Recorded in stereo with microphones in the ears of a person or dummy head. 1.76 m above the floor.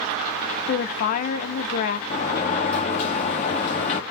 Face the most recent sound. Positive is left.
turn(degrees=45)  # may be behind; listen again after turning